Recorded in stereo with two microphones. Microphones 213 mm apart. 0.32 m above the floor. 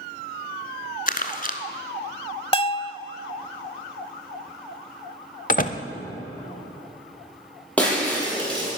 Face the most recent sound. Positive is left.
turn(degrees=5)  # may be behind; listen again after turning